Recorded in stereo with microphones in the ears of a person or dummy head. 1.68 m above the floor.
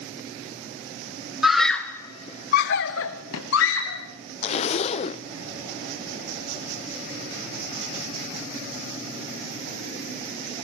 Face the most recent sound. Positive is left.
turn(degrees=35)  # may be behind; listen again after turning